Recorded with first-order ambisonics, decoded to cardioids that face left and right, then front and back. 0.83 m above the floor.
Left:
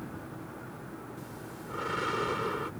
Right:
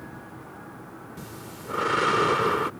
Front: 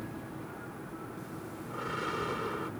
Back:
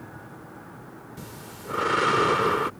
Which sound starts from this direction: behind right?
Breathing, at 1.2 s.